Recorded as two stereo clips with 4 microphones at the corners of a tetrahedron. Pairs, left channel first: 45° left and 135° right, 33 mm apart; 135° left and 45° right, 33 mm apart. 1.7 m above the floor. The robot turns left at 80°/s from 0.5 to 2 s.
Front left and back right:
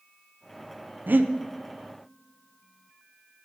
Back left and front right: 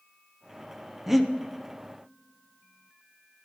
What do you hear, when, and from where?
1.1 s breathing: 130° right, 0.9 m; by 1.3 s 150° right, 0.9 m